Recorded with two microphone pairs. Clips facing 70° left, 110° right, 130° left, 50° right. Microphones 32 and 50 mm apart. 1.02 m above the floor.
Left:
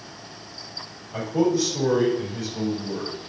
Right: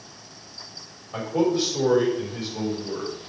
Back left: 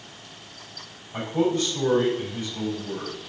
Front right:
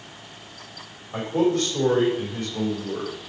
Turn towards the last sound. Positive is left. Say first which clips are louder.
# left 1 dB, front right 2 dB
turn(degrees=-65)